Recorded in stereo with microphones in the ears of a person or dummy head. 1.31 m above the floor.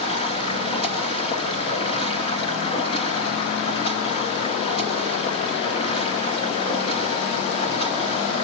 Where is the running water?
35° left (ahead or behind), 2.5 m.